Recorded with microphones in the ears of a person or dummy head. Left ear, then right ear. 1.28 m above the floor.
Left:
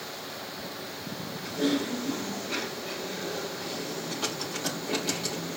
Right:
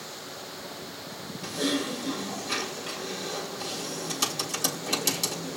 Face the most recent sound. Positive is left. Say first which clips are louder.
# even
turn(degrees=-75)  # may be behind; listen again after turning